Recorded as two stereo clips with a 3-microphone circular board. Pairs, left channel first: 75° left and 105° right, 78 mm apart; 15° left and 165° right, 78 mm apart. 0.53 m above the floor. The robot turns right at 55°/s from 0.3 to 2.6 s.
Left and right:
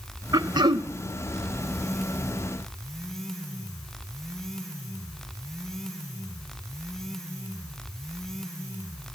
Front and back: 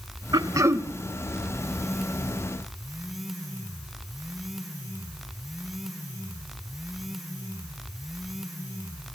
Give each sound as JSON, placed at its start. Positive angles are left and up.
{"t": 0.3, "sound": "throat clearing", "azimuth_deg": -135, "distance_m": 0.7}